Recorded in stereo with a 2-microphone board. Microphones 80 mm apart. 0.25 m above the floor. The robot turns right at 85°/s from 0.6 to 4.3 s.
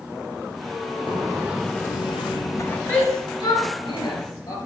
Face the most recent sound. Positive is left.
turn(degrees=40)  # may be behind; listen again after turning